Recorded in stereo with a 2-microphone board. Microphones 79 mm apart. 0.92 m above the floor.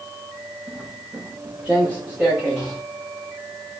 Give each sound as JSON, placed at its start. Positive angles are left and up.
{"t": 0.7, "sound": "footsteps", "side_deg": -25, "distance_m": 5.5}